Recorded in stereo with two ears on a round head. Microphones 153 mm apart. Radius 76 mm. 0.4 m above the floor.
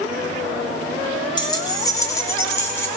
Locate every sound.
1.4 s keys jangling: 25° left (ahead or behind), 1.6 m; by 2.9 s 15° left (ahead or behind), 2 m